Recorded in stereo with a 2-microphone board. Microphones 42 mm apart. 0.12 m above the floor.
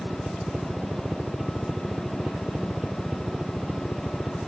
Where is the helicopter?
20° right (ahead or behind); by 4.5 s 10° right (ahead or behind).